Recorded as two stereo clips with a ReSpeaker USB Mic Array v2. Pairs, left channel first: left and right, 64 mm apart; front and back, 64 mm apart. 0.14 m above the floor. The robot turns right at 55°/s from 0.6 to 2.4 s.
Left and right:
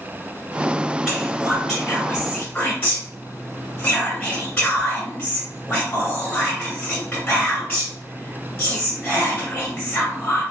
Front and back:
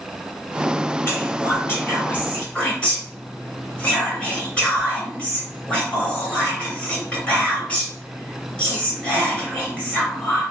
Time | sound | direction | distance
1.1 | whispering | 30° right | 2.0 m